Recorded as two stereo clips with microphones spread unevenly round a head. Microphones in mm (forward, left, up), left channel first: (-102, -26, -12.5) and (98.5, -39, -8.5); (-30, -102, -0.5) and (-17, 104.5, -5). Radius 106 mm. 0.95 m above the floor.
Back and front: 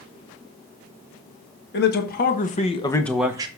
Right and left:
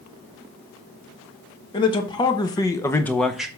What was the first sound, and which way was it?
A man speaking, 160° right.